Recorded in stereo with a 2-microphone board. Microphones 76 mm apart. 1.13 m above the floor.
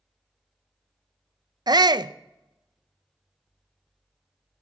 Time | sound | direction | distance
1.7 | a shout | 60° right (ahead or behind) | 0.5 m